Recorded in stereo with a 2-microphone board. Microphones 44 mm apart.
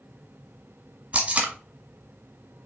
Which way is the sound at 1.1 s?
25° right (ahead or behind).